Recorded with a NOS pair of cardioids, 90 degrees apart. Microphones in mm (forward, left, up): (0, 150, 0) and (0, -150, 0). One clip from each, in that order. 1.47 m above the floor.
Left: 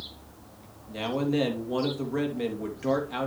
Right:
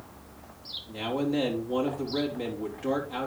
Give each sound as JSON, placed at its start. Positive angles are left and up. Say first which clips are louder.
{"t": 0.9, "sound": "a man speaking", "louder": "left 2 dB", "azimuth_deg": 20, "distance_m": 3.0}